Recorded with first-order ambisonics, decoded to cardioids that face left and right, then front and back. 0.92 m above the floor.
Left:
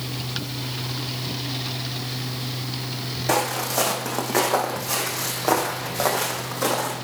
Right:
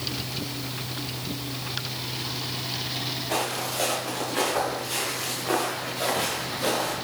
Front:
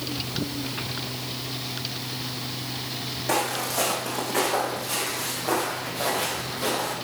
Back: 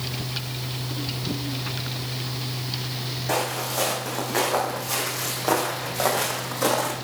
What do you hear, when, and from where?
3.3 s footsteps: 85° left, 3 m; by 7.0 s 140° left, 3 m